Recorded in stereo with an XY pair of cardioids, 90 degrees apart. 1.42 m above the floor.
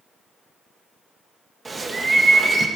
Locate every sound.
1.6 s a bird: 30° right, 1.6 m